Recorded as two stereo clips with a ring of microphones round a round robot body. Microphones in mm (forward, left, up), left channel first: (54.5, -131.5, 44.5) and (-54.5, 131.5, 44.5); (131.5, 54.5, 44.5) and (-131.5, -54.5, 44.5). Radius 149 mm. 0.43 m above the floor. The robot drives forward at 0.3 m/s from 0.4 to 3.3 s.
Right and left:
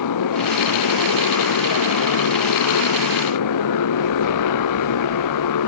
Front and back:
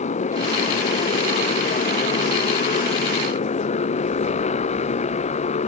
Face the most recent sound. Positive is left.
turn(degrees=-45)